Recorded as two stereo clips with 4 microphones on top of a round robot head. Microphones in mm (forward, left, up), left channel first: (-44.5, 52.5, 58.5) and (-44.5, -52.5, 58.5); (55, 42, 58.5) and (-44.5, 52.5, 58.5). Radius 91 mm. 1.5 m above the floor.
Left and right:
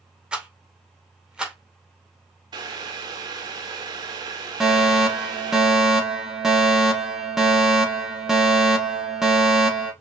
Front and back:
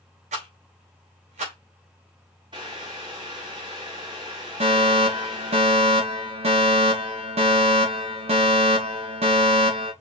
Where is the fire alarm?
175° right, 3.5 m.